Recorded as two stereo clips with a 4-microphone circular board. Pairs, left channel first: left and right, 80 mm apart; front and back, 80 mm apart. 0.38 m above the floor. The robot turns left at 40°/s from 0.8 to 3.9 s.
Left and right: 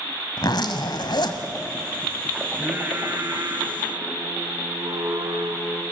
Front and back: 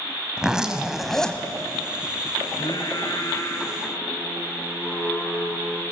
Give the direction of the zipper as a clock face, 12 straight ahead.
9 o'clock.